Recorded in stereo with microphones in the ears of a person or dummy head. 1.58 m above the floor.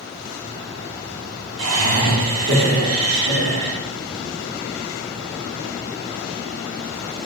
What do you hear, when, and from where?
1.6 s laughter: 85° right, 1.5 m